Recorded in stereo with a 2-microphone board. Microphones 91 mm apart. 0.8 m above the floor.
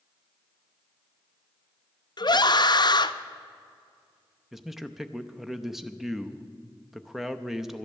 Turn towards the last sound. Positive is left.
turn(degrees=-5)  # may be behind; listen again after turning